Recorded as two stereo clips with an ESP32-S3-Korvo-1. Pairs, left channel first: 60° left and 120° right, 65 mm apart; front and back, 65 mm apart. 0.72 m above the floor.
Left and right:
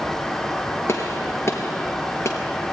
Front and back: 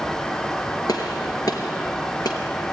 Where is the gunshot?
15° left, 4 m.